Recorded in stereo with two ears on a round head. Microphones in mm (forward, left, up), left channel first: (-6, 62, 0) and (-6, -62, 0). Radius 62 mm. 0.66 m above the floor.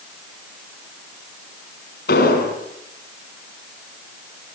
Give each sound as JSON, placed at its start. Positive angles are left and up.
{"t": 2.1, "sound": "an explosion", "side_deg": 75, "distance_m": 7.5}